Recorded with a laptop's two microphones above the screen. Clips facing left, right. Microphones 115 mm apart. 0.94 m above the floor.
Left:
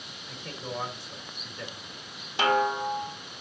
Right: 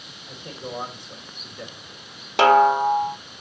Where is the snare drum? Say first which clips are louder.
Right 10 dB; 75° right (ahead or behind), 0.7 m.